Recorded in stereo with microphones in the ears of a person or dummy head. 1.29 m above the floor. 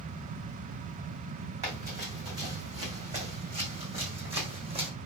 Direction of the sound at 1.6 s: 35° right (ahead or behind).